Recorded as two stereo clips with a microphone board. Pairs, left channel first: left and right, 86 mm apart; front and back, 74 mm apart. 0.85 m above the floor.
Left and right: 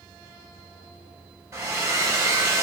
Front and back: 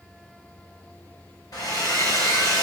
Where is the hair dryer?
35° right, 1.6 m.